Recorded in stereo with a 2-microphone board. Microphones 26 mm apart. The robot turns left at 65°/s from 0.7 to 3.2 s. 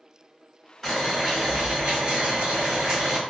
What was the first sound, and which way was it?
Boiling, 5° left.